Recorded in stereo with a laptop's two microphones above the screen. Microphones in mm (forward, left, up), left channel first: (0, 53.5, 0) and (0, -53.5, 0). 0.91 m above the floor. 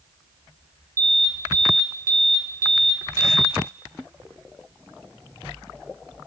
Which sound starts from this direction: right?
An alarm, at 1.0 s.